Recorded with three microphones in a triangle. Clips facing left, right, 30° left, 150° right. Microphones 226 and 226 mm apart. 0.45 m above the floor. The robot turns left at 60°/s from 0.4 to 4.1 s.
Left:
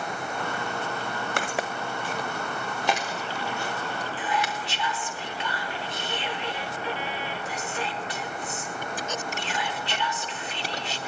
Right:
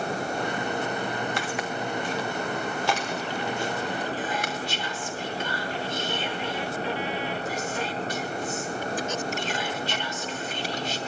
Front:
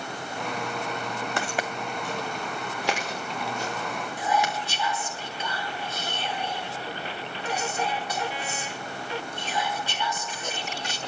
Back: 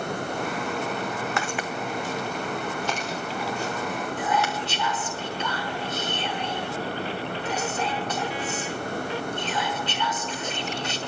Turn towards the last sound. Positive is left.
turn(degrees=-50)